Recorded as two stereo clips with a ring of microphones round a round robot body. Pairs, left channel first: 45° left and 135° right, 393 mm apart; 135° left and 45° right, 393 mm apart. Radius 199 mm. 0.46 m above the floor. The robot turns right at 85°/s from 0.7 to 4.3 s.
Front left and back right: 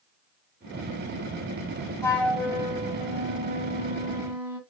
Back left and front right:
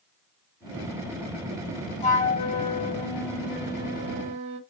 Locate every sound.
2.0 s a flute: 110° left, 1.1 m; by 4.6 s 55° right, 1.1 m